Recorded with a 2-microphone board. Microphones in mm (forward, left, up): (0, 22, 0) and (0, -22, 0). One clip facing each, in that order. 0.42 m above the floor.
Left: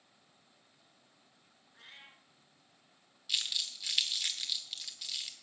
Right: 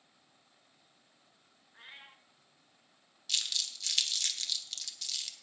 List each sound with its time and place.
1.7 s a cat meowing: 15° right (ahead or behind), 1.4 m
3.3 s crumpling: 10° left (ahead or behind), 1.3 m